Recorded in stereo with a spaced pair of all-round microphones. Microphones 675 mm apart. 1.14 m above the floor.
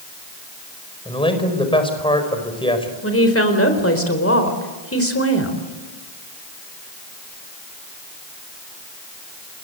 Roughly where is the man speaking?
Centre.